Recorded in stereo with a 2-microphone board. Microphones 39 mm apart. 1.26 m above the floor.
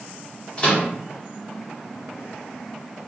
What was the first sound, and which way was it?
A microwave, 30° left (ahead or behind).